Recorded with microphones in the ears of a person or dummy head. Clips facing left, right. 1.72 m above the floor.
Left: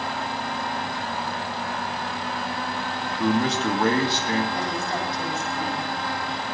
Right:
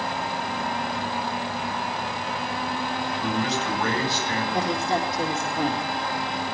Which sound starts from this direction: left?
A man speaking, at 3.1 s.